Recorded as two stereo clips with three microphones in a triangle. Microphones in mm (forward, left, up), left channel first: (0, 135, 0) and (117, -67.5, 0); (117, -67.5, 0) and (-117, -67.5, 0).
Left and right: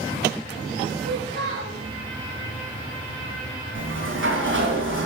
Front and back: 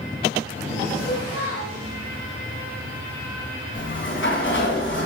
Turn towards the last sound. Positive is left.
turn(degrees=-30)